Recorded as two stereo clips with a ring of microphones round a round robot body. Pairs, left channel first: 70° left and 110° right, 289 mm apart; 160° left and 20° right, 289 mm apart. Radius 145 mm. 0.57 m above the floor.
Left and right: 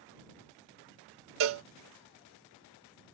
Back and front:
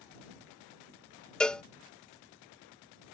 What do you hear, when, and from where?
1.4 s a cowbell: 115° right